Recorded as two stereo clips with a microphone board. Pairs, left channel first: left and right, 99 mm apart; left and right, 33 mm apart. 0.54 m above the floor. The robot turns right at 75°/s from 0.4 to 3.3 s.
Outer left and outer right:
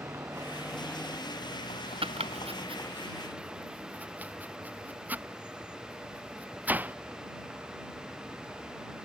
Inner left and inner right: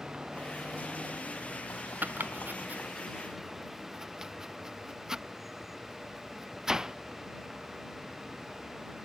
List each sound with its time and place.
0.0 s a vehicle: 30° right; by 9.1 s 170° right
2.0 s chopping: 65° right (ahead or behind); by 7.0 s 15° right (ahead or behind)